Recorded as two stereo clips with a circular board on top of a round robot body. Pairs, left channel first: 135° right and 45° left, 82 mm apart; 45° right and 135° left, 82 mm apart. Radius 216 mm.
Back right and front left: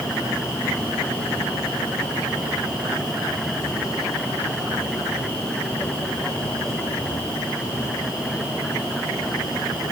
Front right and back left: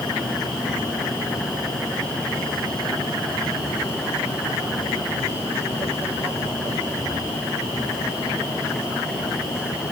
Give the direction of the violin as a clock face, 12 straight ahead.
I don't hear a violin.